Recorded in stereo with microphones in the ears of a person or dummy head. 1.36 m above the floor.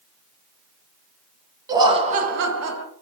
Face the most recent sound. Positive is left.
turn(degrees=-80)